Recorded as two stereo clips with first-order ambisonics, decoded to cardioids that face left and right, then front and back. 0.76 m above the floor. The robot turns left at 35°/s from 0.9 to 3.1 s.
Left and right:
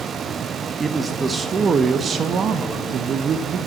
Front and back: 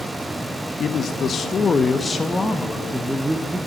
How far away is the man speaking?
About 0.8 m.